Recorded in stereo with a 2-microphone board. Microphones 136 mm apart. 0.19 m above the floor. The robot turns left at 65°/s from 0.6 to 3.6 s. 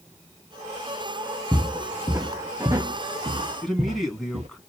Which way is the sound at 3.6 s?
Centre (ahead or behind).